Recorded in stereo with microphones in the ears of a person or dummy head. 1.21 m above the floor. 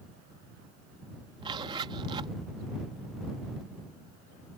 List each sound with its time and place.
1.4 s a zipper: 25° right (ahead or behind)